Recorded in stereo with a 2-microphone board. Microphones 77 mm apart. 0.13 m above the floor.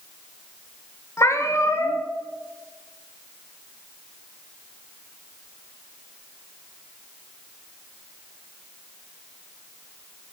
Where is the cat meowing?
40° left (ahead or behind), 1.0 m.